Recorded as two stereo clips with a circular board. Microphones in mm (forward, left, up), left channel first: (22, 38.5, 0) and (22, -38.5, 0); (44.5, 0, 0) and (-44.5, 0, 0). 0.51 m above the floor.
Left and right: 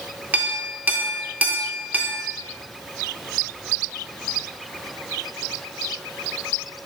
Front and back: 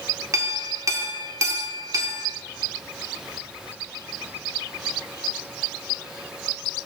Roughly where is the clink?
Behind right.